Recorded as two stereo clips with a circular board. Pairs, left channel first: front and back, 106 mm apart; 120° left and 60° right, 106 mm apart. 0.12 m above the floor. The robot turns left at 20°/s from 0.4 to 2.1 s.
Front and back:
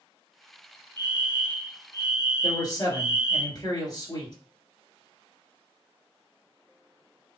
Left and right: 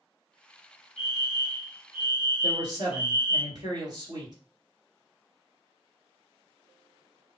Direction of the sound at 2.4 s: 35° right.